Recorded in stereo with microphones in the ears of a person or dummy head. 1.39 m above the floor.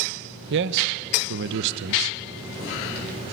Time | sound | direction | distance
0.5 | a man speaking | 65° right (ahead or behind) | 1.2 m